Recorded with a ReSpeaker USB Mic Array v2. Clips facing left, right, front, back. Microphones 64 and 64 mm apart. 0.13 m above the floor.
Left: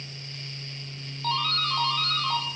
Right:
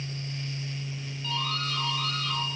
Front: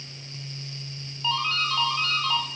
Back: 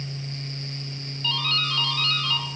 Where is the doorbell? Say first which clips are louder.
Left 5 dB, front 2 dB; 65° left, 5.5 m.